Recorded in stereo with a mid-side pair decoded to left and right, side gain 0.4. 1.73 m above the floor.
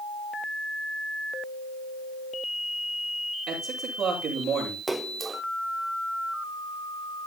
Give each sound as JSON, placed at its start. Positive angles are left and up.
{"t": 3.5, "sound": "a man speaking", "azimuth_deg": -70, "distance_m": 9.0}
{"t": 4.9, "sound": "a splash", "azimuth_deg": -20, "distance_m": 1.4}